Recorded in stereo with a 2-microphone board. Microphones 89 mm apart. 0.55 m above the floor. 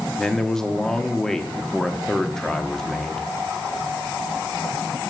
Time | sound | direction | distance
0.2 | a man speaking | 5° left (ahead or behind) | 1.1 m